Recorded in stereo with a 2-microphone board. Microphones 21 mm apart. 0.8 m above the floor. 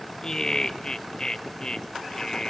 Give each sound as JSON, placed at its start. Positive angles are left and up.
{"t": 0.2, "sound": "laughter", "side_deg": 35, "distance_m": 1.1}